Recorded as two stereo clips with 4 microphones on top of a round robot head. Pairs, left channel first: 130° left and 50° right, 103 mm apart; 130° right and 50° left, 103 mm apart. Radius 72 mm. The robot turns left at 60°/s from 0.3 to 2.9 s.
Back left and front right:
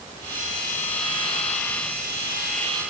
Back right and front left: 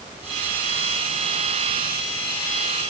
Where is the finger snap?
I don't hear a finger snap.